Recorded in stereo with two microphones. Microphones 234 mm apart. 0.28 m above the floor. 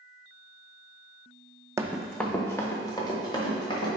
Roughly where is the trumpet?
I don't hear a trumpet.